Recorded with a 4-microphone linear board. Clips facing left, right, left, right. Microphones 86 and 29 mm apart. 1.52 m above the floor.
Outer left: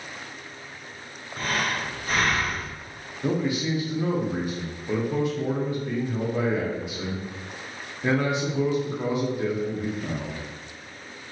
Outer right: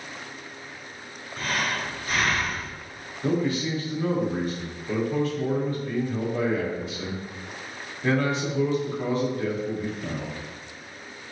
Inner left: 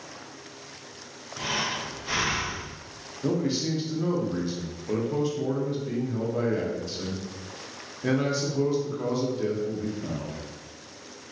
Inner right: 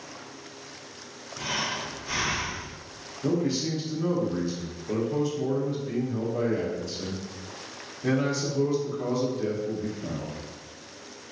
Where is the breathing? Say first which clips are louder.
Outer left 1 dB, inner left 1 dB; 40° left (ahead or behind), 0.8 m.